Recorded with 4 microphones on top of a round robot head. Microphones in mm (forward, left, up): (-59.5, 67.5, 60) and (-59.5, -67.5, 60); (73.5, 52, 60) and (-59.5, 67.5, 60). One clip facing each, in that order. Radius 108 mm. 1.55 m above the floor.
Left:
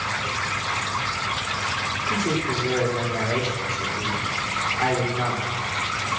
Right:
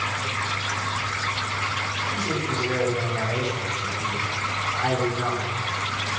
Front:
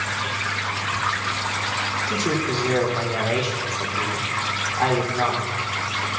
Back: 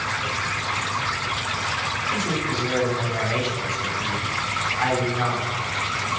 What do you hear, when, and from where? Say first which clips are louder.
2.1 s a man speaking: left 4 dB, front 3 dB; 40° left, 4.5 m